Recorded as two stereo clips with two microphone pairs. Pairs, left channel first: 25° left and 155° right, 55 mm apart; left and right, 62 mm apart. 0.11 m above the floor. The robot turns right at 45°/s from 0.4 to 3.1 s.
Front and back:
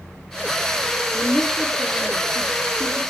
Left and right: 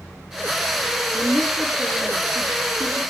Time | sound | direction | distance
1.1 | a woman speaking | 40° right | 6.5 m